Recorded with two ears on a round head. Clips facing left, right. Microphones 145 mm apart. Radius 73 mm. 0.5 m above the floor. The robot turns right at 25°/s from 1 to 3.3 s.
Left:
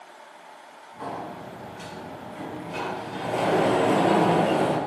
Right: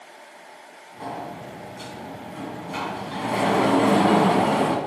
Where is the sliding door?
155° right, 3 m; by 4.8 s 95° right, 3 m.